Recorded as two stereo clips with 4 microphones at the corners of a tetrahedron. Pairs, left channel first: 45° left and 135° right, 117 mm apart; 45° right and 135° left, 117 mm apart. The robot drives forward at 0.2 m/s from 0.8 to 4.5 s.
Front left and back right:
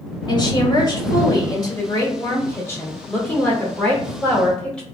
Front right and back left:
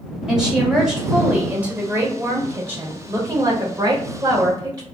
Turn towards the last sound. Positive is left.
turn(degrees=125)